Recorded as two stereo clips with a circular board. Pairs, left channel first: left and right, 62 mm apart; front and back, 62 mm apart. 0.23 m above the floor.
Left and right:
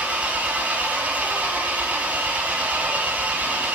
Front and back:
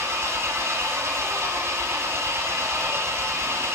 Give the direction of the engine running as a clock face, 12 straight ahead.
5 o'clock.